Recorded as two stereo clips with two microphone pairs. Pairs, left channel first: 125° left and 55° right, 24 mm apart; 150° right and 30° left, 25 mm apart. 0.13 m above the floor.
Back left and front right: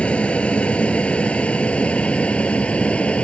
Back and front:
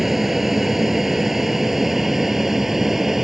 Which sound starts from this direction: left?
An aircraft, at 0.0 s.